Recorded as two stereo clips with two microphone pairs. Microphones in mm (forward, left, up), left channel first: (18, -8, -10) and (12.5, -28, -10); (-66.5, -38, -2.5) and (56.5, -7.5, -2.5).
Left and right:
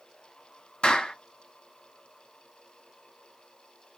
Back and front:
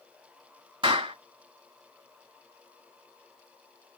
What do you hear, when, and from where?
0.8 s a clap: 60° left, 2.5 m